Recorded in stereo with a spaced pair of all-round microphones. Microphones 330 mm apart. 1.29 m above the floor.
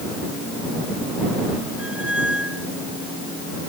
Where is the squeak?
5° right (ahead or behind).